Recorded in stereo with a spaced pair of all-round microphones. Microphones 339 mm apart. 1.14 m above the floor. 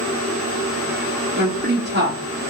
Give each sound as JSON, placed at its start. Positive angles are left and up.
{"t": 1.4, "sound": "a woman speaking", "side_deg": -30, "distance_m": 0.8}